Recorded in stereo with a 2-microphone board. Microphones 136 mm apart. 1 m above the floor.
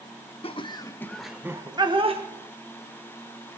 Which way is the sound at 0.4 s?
45° left (ahead or behind).